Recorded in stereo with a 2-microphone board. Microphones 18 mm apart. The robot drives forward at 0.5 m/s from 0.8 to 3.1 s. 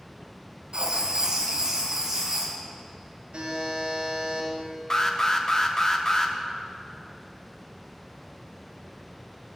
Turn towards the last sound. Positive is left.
turn(degrees=30)  # may be behind; listen again after turning